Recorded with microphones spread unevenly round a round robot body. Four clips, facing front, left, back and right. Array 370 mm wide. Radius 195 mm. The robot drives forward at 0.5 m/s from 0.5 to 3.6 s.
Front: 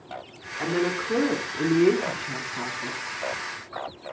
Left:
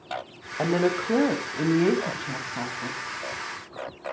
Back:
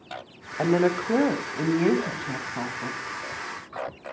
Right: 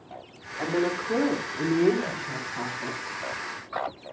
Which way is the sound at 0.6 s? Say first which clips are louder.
Left 3 dB, back 4 dB; 120° left.